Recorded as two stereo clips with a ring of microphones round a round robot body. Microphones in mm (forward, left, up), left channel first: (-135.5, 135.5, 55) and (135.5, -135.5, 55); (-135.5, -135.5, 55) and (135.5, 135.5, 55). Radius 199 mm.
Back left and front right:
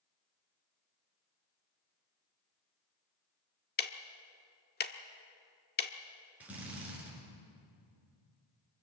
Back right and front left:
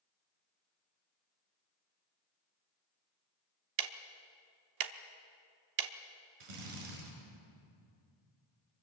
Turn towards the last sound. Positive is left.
turn(degrees=40)